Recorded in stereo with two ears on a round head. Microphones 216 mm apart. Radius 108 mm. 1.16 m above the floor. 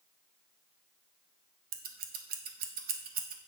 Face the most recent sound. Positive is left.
turn(degrees=-35)  # may be behind; listen again after turning